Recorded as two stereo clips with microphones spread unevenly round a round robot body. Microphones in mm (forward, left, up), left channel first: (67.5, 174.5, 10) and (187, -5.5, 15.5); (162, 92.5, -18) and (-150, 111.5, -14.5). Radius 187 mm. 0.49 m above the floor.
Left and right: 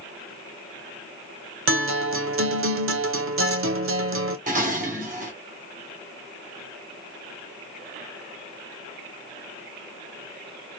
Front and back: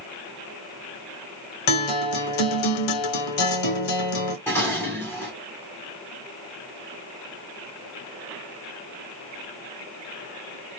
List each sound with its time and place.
1.7 s a guitar: 30° right, 0.8 m
4.5 s dishes clattering: 80° right, 0.7 m